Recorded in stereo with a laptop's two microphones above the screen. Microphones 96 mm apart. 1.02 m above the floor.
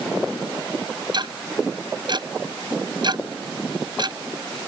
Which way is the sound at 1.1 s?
50° right (ahead or behind).